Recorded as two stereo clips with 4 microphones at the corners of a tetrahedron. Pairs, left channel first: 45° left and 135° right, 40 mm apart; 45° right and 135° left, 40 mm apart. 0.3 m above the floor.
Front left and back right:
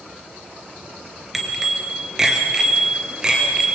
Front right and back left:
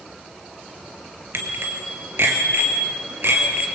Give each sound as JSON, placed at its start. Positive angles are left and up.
{"t": 1.3, "sound": "a bicycle bell", "azimuth_deg": 140, "distance_m": 3.5}